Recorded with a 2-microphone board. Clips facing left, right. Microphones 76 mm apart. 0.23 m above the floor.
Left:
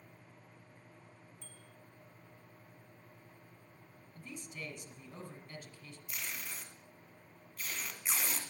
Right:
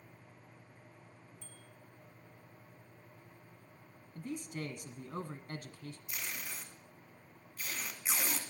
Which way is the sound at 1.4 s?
Centre (ahead or behind).